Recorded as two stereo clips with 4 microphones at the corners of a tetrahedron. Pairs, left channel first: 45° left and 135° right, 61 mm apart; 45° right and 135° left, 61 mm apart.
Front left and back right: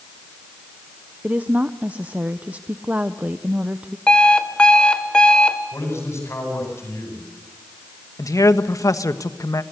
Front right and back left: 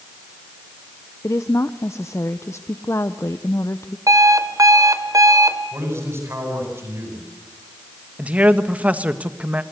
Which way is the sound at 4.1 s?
120° left.